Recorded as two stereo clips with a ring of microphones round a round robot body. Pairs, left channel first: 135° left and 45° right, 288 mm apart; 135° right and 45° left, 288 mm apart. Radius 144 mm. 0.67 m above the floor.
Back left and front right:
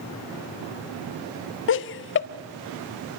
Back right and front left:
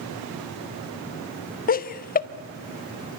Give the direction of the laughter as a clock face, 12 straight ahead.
6 o'clock.